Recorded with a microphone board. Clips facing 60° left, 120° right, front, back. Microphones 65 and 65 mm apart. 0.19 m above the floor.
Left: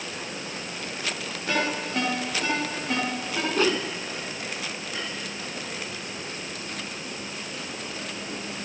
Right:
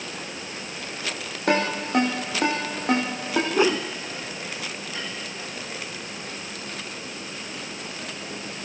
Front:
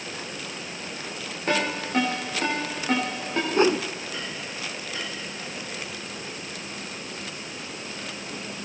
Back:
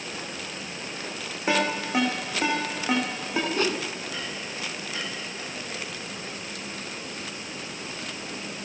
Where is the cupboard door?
No cupboard door in this recording.